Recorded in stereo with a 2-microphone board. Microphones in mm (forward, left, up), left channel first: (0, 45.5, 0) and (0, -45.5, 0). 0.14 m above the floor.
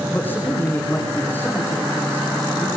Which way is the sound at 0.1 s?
20° left (ahead or behind).